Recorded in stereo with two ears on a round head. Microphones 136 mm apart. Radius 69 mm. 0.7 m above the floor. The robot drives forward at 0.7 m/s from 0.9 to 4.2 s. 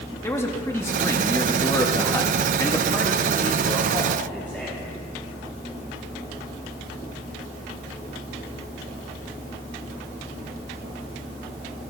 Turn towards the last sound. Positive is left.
turn(degrees=10)  # may be behind; listen again after turning